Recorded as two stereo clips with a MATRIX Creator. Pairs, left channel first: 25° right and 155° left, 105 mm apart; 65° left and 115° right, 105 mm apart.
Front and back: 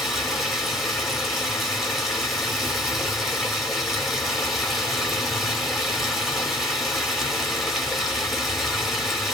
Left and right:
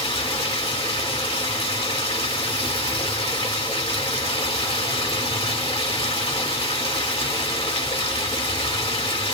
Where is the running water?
70° left, 1.2 m.